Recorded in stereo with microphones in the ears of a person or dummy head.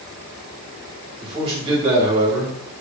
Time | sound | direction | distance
1.2 | a man speaking | 30° right (ahead or behind) | 2 m